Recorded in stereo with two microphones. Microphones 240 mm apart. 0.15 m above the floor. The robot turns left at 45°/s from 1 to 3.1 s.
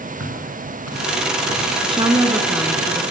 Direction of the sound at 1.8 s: 135° right.